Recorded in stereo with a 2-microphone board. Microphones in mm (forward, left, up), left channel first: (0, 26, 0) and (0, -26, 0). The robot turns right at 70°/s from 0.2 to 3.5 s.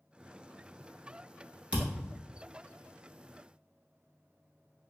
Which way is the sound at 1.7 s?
20° right (ahead or behind).